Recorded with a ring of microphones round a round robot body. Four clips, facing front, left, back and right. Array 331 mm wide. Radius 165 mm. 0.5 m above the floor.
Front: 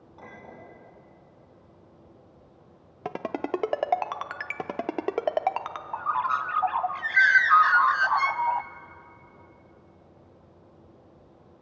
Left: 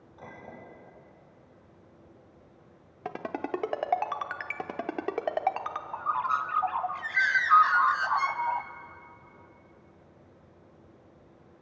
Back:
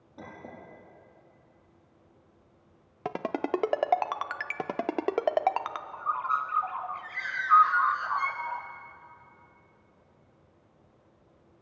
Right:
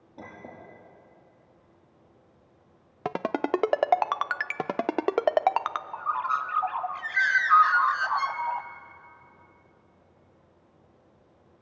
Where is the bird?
5° right, 0.7 m.